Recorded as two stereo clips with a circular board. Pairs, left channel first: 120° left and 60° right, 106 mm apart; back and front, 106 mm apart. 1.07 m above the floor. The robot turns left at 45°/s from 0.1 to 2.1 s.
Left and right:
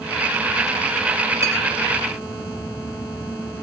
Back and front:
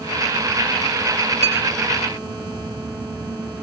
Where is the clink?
Straight ahead, 4 m; by 1.6 s 5° right, 4 m.